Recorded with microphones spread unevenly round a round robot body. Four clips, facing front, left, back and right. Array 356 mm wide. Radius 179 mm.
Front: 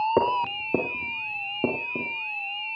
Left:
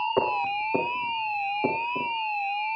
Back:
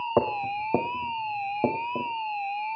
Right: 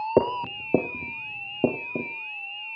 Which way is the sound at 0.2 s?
100° right.